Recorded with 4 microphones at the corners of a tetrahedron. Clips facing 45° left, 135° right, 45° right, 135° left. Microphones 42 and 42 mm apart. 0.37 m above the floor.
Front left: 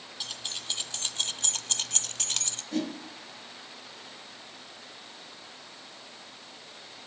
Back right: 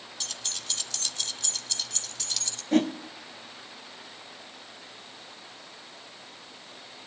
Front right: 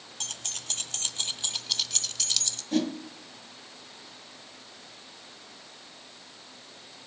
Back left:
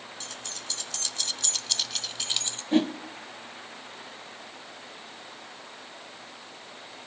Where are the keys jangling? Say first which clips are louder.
Front left 1 dB, front right 4 dB; 30° right, 1.2 m; by 2.6 s 85° left, 0.9 m.